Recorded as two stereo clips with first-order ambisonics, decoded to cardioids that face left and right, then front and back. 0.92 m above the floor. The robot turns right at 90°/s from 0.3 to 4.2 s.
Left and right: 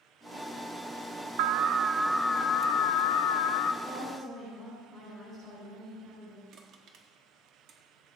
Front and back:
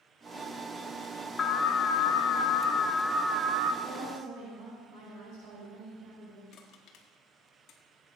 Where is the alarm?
70° right, 0.6 m; by 3.7 s 140° left, 0.6 m.